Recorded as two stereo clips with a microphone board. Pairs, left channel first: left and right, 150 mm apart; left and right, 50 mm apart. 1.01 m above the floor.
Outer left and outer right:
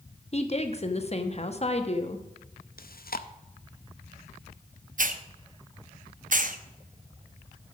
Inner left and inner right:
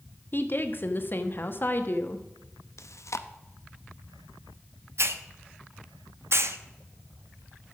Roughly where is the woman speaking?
Left.